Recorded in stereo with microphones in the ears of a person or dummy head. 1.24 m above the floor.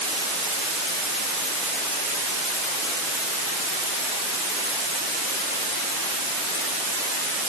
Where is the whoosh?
No whoosh in this recording.